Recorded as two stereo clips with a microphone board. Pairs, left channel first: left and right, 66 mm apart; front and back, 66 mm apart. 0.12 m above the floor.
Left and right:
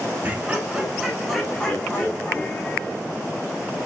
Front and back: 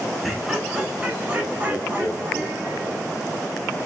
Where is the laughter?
90° right, 1.1 m; by 3.0 s 135° left, 1.6 m.